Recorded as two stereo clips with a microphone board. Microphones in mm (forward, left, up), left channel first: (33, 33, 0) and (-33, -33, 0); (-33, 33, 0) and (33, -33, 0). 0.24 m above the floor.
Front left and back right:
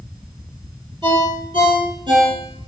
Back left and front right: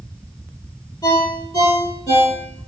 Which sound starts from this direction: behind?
A ringtone, at 1.0 s.